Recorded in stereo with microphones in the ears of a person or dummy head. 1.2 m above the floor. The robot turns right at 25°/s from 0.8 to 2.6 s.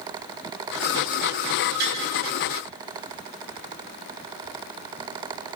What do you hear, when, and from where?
1.8 s tapping: 65° right (ahead or behind), 4.5 m; by 2.0 s 60° right (ahead or behind), 4.5 m